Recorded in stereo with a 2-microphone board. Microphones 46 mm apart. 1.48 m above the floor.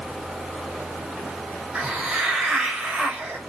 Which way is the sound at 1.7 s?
20° right (ahead or behind).